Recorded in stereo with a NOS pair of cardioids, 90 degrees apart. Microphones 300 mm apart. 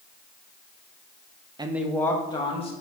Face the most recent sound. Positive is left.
turn(degrees=20)